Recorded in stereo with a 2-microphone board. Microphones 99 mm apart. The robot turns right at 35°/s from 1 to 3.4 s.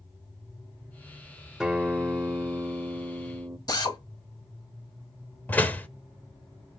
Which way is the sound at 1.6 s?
10° right (ahead or behind).